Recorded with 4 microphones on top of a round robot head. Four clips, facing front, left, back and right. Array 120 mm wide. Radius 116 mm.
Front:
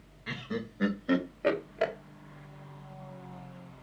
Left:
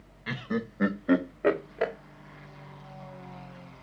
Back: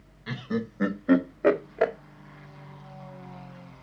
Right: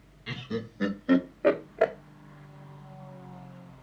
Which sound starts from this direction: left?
Laughter, at 0.3 s.